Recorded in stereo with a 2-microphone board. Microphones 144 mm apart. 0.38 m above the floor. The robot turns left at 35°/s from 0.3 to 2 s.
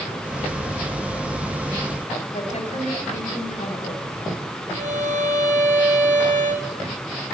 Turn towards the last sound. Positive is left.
turn(degrees=-60)  # may be behind; listen again after turning